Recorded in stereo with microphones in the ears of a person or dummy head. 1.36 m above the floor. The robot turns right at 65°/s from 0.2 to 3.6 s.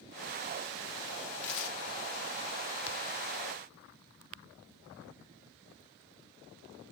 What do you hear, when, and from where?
1.4 s tearing paper: 60° left (ahead or behind), 0.9 m; by 1.8 s 80° left, 0.9 m